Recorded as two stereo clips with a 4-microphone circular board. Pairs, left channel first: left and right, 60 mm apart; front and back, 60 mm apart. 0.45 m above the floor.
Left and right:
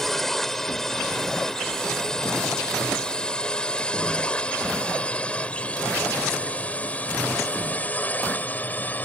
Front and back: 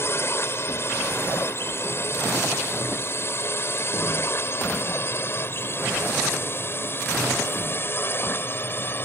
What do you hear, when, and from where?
0.0 s a drone: 5° left; by 9.1 s 35° left